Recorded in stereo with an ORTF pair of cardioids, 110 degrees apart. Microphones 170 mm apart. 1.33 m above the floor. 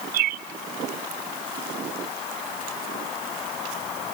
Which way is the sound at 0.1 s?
65° right.